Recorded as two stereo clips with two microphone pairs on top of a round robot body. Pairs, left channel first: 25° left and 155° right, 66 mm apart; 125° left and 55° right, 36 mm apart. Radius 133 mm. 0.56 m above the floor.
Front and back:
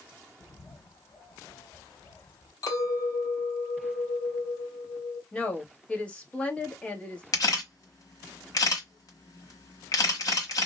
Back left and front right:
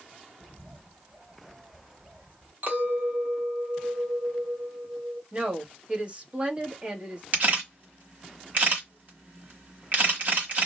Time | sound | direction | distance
0.4 | a bird | 5° left | 1.7 m
2.6 | a clink | 10° right | 1.4 m
5.3 | a woman speaking | 25° right | 1.3 m
7.3 | a camera shutter | 15° right | 1.2 m